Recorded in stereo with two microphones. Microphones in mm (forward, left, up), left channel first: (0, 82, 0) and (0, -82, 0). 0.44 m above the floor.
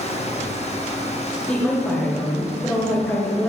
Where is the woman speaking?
10° left (ahead or behind), 1.7 m.